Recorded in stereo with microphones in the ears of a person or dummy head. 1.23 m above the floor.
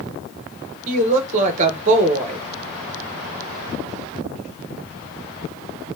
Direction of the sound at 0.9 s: 40° right (ahead or behind).